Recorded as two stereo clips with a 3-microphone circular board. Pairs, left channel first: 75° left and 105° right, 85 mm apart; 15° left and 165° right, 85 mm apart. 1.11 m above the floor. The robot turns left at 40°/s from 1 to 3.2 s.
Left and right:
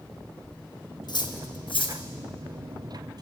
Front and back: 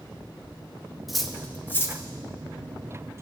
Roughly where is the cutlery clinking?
Left.